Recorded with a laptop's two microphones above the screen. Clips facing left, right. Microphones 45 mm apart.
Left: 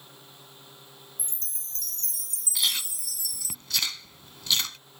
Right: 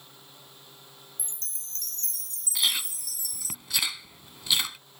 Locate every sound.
0.0 s a fan: 10° left (ahead or behind)
1.2 s a chime: 50° right (ahead or behind)
2.5 s chewing: 10° right (ahead or behind)